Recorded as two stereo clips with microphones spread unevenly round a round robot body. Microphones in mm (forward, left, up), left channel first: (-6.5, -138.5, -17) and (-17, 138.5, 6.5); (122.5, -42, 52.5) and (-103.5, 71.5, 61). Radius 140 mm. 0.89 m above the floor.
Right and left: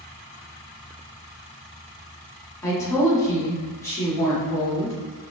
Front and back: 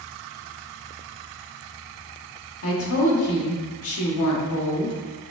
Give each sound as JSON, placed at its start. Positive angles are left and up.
{"t": 2.6, "sound": "a woman speaking", "azimuth_deg": -10, "distance_m": 1.6}